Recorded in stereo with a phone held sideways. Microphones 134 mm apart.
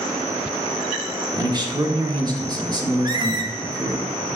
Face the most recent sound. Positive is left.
turn(degrees=-35)  # may be behind; listen again after turning